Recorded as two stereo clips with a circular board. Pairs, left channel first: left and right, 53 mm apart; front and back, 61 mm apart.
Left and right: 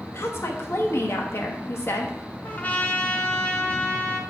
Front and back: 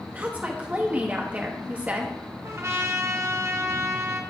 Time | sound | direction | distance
0.1 | a woman speaking | 120° left | 1.3 m
2.4 | a trumpet | 145° left | 0.9 m